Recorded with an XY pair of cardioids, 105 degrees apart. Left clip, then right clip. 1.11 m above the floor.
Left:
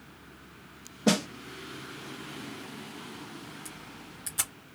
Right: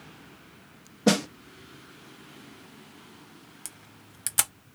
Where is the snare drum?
20° right, 0.9 m.